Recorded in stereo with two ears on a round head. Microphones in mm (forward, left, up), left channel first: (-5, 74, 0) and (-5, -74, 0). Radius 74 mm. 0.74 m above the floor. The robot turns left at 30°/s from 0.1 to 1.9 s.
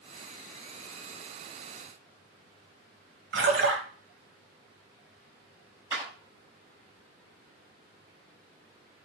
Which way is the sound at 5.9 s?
20° right (ahead or behind).